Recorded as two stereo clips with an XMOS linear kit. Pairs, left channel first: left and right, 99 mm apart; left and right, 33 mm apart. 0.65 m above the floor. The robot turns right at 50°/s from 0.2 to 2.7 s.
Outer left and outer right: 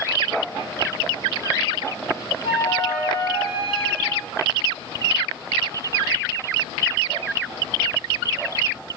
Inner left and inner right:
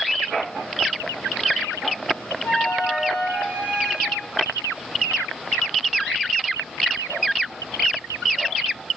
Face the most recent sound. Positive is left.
turn(degrees=75)  # may be behind; listen again after turning